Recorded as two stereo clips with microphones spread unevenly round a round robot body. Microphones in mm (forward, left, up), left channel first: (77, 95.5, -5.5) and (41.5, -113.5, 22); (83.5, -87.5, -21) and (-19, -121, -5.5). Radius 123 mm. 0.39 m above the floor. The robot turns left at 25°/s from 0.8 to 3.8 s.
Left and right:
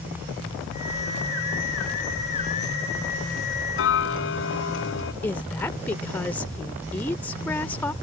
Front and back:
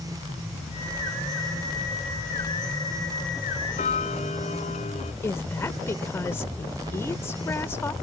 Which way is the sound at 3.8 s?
65° left.